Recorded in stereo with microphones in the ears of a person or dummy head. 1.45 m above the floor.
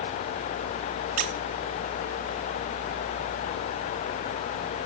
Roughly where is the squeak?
Right.